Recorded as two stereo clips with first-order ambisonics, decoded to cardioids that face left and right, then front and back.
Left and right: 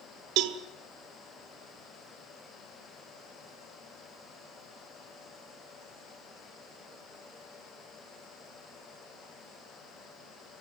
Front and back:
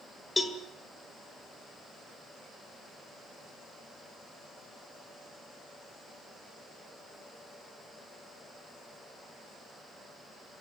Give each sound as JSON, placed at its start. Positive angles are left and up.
{"t": 0.4, "sound": "a cowbell", "azimuth_deg": -75, "distance_m": 1.5}